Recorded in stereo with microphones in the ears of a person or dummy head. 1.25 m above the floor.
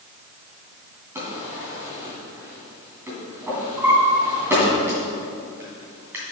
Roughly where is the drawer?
Centre.